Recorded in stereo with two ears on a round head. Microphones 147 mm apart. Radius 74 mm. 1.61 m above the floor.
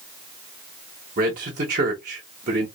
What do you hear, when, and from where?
1.2 s a man speaking: 50° right (ahead or behind), 0.9 m